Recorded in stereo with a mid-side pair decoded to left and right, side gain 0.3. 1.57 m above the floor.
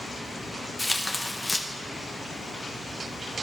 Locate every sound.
0.8 s tearing paper: 15° left, 1.0 m